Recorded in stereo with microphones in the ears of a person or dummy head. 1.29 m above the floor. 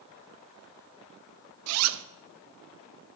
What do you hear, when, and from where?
1.7 s a zipper: 75° right (ahead or behind), 0.6 m